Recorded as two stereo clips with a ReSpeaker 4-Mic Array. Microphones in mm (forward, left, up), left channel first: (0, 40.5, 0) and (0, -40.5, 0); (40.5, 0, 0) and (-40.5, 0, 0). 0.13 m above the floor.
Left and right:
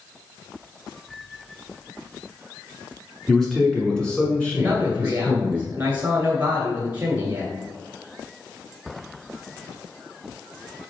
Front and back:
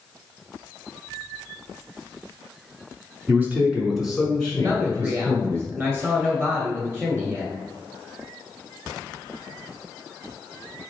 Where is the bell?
No bell in this recording.